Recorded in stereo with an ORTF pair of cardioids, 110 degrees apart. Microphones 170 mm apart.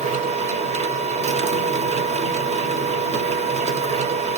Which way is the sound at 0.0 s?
45° right.